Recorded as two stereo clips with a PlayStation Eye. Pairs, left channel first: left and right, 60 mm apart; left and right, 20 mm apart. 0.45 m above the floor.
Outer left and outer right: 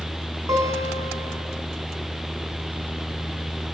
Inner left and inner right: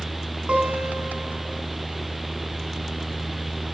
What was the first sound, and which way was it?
A guitar, 75° right (ahead or behind).